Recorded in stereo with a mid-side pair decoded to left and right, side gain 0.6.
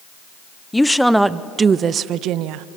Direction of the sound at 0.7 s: 10° left.